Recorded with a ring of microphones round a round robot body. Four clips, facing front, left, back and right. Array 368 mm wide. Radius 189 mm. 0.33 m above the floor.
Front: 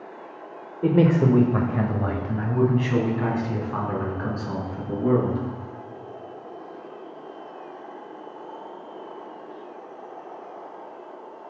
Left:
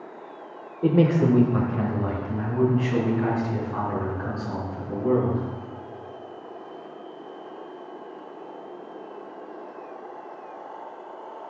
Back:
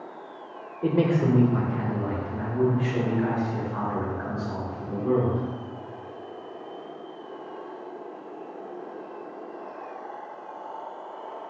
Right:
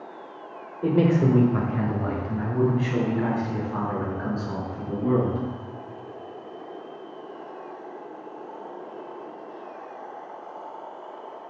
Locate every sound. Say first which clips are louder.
0.8 s a man speaking: left 1 dB, front 4 dB; 40° left, 1.2 m; by 5.4 s straight ahead, 6 m